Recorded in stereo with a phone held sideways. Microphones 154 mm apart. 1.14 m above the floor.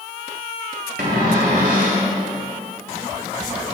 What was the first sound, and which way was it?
A cupboard door, 75° right (ahead or behind).